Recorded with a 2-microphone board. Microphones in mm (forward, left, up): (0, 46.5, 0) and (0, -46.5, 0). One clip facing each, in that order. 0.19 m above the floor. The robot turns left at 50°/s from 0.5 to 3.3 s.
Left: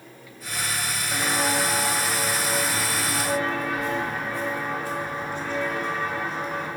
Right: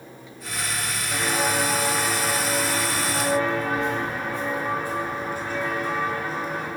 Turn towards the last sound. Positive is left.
turn(degrees=-5)  # may be behind; listen again after turning